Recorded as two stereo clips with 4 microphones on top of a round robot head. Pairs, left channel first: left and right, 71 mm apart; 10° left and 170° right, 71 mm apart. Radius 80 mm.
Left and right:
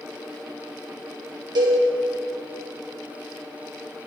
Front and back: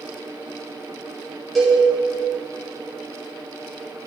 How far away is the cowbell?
About 1.7 m.